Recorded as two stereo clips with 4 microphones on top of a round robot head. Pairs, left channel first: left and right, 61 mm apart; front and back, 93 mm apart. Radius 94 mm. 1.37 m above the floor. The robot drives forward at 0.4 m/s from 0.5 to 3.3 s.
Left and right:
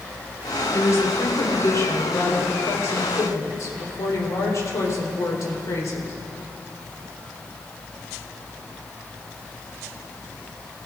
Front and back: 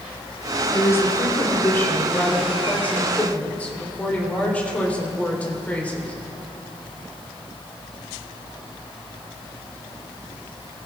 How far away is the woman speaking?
About 4 m.